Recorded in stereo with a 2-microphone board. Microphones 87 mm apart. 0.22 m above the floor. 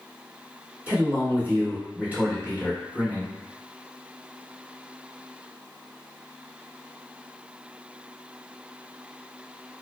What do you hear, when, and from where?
0.9 s a man speaking: 20° right (ahead or behind), 1.2 m